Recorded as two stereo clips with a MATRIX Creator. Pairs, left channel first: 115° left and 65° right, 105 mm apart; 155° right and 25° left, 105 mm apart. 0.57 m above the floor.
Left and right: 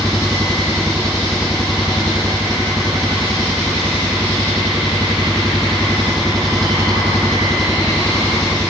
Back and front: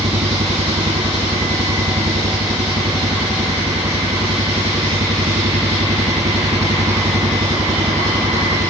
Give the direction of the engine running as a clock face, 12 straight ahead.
11 o'clock.